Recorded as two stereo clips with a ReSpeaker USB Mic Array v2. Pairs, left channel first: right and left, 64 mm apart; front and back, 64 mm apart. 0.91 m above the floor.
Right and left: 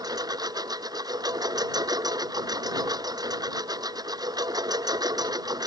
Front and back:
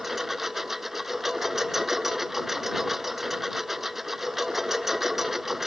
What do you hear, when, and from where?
0.0 s a lawn mower: 95° left